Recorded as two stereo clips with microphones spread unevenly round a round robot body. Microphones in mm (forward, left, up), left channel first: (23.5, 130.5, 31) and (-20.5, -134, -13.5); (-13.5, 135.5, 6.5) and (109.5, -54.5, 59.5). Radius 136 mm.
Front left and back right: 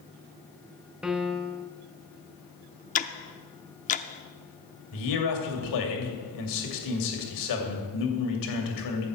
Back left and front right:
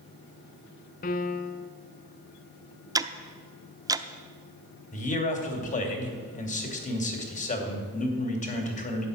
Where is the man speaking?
75° left, 2.5 m.